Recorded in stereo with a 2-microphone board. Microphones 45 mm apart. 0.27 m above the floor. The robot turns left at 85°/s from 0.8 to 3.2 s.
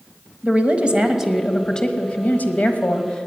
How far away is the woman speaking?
About 1.1 m.